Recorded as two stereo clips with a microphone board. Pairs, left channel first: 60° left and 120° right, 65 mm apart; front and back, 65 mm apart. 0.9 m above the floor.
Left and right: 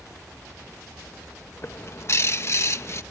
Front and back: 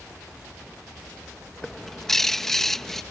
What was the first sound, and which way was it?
A bird, 80° left.